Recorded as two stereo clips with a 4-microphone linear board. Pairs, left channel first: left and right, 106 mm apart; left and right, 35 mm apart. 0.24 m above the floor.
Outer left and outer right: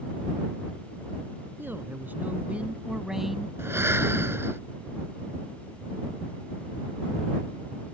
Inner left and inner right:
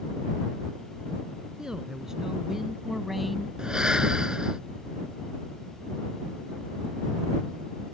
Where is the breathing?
20° right (ahead or behind).